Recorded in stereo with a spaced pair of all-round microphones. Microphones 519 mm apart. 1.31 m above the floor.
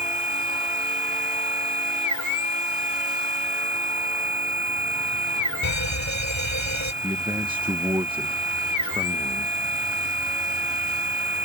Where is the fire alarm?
60° right (ahead or behind).